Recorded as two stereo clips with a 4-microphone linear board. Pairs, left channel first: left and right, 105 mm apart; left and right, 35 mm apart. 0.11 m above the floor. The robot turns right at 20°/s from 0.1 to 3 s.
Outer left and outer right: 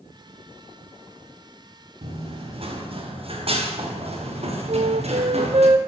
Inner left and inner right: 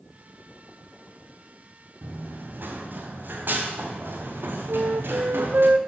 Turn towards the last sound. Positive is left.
turn(degrees=-80)